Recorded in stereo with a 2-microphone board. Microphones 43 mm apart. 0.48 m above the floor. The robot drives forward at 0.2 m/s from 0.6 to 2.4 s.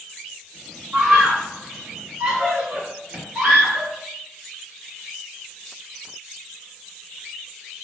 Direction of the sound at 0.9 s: 30° right (ahead or behind).